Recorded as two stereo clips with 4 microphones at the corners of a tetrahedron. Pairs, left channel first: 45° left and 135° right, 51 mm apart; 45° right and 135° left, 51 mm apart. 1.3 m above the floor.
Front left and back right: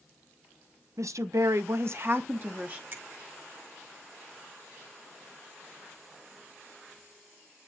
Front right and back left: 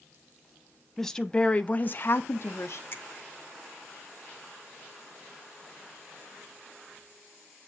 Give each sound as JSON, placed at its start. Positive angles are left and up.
{"t": 1.0, "sound": "a woman speaking", "azimuth_deg": -130, "distance_m": 0.9}
{"t": 2.9, "sound": "a finger snap", "azimuth_deg": -90, "distance_m": 2.0}